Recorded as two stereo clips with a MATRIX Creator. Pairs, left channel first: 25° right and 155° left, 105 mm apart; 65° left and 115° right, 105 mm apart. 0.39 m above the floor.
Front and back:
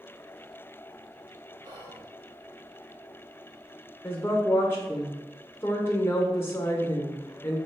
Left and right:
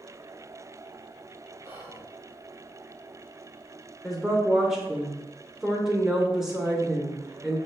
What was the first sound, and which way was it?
Whispering, 175° right.